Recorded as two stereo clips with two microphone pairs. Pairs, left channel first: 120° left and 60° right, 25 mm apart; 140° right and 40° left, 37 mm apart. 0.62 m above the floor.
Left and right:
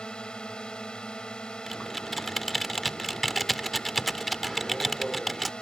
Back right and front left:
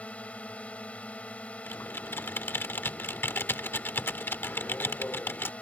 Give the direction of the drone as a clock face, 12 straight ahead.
6 o'clock.